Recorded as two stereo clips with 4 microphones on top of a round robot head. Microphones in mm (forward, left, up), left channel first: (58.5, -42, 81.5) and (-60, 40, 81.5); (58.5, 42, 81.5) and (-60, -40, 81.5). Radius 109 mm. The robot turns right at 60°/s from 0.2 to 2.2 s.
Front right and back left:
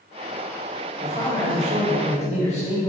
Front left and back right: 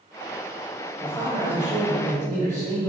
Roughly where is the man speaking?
Right.